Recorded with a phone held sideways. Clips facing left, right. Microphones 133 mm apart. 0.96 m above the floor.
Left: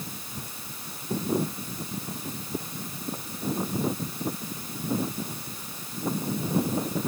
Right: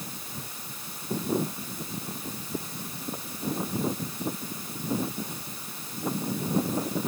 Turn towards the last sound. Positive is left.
No sound to turn to.